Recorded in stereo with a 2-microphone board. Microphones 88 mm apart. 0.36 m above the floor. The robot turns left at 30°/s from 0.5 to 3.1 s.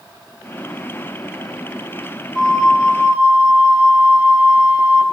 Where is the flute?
Centre (ahead or behind), 1.1 m; by 5.0 s 15° right (ahead or behind), 1.1 m.